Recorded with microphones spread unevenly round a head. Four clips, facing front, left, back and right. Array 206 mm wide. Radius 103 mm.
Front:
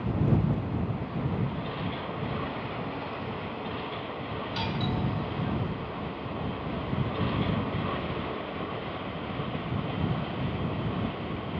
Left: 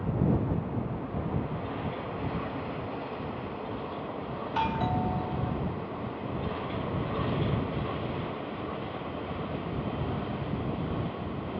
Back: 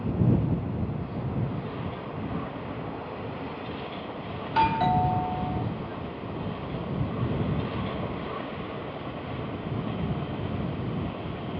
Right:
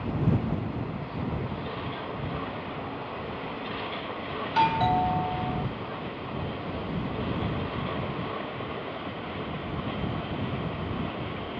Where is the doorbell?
140° right.